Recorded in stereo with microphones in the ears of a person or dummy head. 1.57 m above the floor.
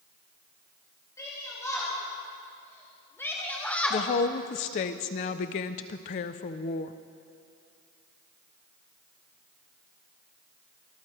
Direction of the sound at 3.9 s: 35° left (ahead or behind).